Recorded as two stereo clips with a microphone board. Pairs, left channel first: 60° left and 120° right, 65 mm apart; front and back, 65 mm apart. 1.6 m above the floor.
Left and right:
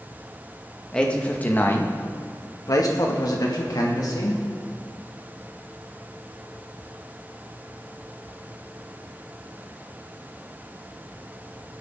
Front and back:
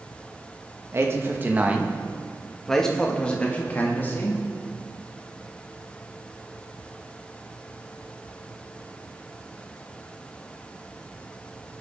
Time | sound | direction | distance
0.9 | a man speaking | 135° left | 1.7 m